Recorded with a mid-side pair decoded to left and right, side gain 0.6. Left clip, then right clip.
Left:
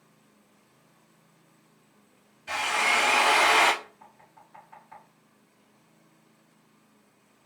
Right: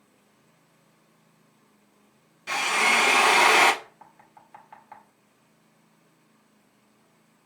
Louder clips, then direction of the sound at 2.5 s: Right 3 dB; 65° right.